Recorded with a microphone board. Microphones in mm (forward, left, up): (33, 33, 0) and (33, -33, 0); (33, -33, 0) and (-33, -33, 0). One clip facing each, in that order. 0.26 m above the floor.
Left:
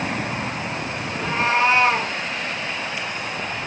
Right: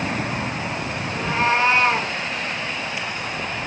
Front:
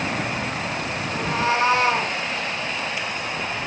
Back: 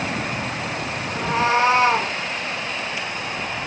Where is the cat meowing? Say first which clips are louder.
Right 1 dB, back 3 dB; 175° right, 7.5 m; by 2.1 s straight behind, 6 m.